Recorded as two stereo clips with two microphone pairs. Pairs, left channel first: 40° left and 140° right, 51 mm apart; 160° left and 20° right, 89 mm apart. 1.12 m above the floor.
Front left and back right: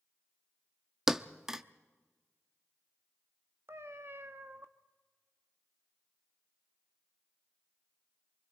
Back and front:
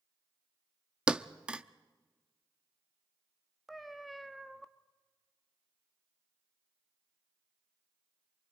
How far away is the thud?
About 0.6 m.